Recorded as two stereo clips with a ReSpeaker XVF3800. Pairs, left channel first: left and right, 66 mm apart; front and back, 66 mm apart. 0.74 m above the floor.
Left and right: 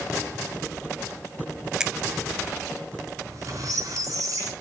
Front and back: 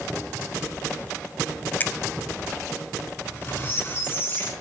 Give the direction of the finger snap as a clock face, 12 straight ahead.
1 o'clock.